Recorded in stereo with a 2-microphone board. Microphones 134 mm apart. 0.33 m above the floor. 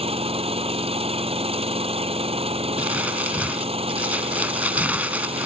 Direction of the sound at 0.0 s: 45° right (ahead or behind).